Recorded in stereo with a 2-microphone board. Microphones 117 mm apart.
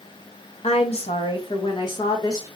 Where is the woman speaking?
65° left (ahead or behind), 0.8 m; by 2.5 s 30° left (ahead or behind), 1.5 m.